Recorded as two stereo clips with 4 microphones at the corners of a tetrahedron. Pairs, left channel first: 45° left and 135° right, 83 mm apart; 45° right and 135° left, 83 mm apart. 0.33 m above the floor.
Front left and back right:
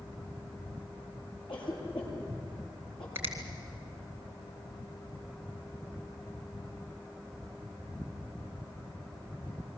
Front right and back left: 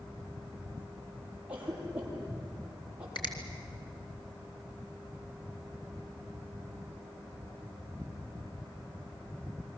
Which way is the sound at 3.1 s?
70° right.